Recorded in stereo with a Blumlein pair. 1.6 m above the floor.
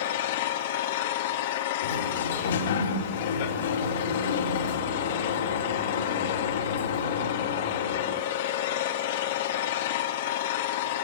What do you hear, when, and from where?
0.0 s an engine running: 55° left, 3.5 m
1.8 s a sliding door: 60° left, 4 m